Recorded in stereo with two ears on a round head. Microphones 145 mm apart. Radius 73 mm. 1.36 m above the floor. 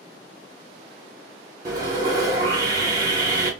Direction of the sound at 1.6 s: 25° right (ahead or behind).